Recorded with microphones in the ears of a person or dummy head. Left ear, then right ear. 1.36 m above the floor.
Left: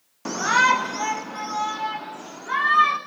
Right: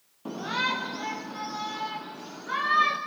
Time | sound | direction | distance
0.2 | a shout | 60° left (ahead or behind) | 0.8 m